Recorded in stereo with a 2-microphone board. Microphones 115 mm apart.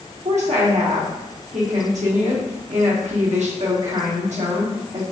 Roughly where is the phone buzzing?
No phone buzzing in this recording.